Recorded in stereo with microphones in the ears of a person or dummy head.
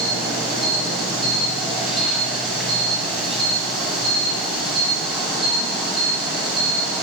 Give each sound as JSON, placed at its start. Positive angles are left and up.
{"t": 0.0, "sound": "an insect", "side_deg": 0, "distance_m": 4.5}